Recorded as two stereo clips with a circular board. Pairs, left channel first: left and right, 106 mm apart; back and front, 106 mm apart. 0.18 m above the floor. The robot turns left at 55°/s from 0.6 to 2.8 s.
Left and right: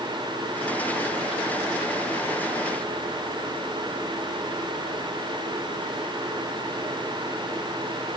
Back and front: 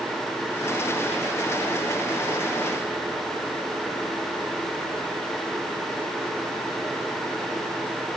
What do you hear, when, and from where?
Only background noise.